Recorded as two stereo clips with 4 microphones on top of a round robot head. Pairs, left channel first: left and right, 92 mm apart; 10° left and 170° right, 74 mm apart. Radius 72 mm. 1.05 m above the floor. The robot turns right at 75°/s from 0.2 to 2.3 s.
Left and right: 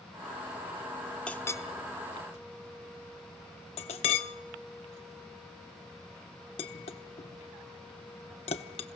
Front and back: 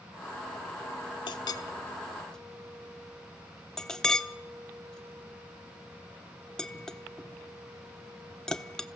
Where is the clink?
10° left, 1.1 m; by 8.9 s 90° left, 1.1 m.